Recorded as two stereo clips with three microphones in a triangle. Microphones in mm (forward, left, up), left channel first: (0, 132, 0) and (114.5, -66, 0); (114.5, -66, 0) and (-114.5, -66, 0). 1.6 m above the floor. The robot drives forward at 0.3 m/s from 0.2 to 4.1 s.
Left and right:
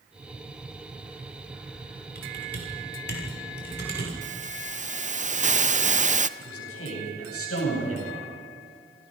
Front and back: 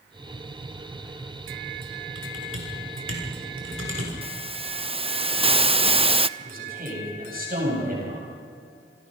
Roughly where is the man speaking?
Behind left.